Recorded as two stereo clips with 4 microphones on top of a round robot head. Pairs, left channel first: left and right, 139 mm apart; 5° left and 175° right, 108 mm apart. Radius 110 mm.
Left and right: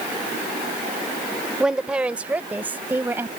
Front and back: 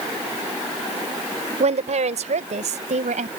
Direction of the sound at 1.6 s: 175° right.